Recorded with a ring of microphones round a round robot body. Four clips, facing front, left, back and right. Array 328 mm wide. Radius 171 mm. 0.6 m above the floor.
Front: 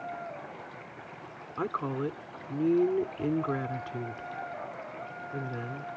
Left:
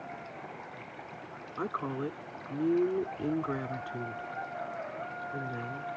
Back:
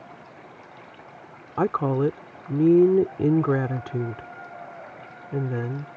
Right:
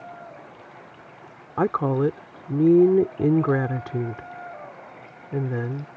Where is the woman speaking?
130° right.